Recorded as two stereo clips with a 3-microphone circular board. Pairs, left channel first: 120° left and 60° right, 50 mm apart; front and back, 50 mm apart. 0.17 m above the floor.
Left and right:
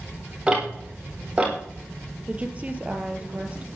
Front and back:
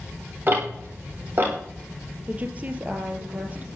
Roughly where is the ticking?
Behind right.